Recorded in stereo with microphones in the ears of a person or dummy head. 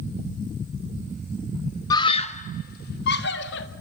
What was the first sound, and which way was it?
A scream, 20° left (ahead or behind).